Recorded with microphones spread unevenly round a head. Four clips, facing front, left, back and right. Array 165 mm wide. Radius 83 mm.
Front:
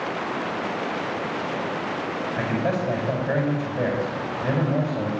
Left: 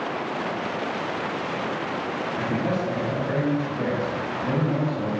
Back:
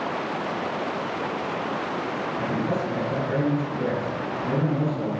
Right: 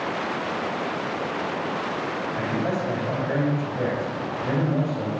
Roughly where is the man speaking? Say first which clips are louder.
Left 1 dB, front 2 dB; ahead.